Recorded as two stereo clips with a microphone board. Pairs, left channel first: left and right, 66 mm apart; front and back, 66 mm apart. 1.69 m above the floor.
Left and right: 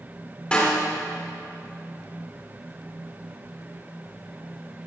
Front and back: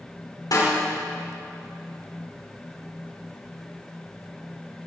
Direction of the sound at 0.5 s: 15° left.